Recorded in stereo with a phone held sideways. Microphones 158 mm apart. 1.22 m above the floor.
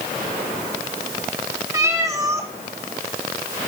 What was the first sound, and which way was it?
A cat meowing, 20° right (ahead or behind).